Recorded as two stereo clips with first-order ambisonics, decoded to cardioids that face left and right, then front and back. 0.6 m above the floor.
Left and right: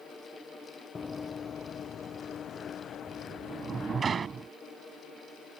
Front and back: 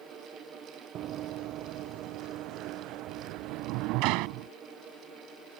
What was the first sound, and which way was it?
Running footsteps, 160° left.